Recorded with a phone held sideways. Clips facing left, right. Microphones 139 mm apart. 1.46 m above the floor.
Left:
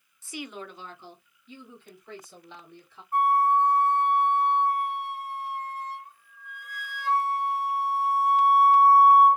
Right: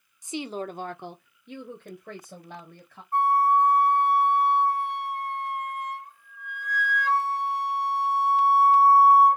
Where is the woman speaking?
15° right (ahead or behind), 0.5 m; by 3.0 s 55° right (ahead or behind), 1.7 m.